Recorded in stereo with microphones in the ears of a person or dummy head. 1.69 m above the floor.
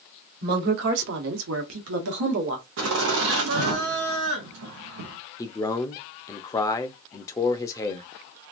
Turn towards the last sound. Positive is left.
turn(degrees=15)  # may be behind; listen again after turning